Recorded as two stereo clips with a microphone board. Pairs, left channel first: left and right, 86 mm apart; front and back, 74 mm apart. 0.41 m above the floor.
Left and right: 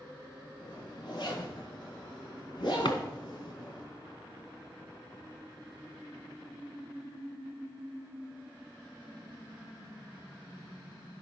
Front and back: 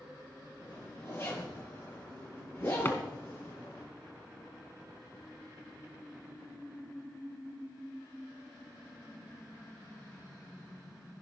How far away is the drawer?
About 1.9 m.